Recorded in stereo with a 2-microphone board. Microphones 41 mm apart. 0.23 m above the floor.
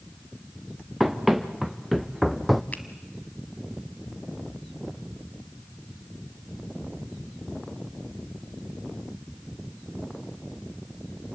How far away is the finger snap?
About 1.4 m.